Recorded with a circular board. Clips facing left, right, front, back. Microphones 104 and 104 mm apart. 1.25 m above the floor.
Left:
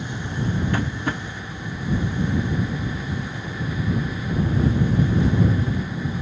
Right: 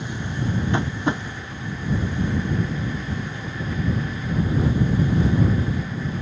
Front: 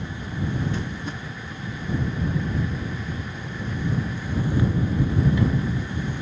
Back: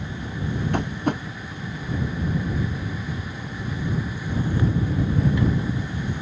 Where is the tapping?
160° right.